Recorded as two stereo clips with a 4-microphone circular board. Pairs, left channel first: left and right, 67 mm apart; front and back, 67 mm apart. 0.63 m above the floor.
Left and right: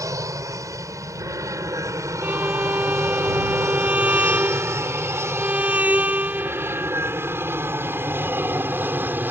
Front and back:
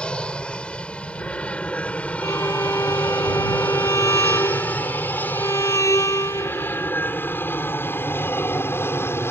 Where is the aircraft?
75° right; by 9.3 s 40° right.